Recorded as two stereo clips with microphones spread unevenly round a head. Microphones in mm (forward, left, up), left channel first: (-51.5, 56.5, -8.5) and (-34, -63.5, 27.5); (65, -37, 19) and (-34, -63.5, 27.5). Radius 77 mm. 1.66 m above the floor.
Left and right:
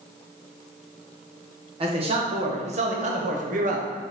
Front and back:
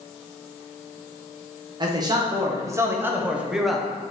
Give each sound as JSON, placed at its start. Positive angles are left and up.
{"t": 1.8, "sound": "a man speaking", "azimuth_deg": -120, "distance_m": 1.9}